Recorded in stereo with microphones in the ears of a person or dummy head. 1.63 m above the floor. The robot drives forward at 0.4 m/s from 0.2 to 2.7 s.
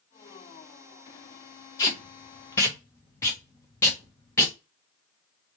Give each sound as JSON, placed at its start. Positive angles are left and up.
{"t": 1.8, "sound": "tape being pulled", "side_deg": 20, "distance_m": 0.7}